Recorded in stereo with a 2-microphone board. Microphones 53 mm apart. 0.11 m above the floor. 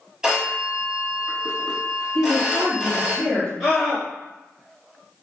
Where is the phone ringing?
10° right (ahead or behind), 1.8 m.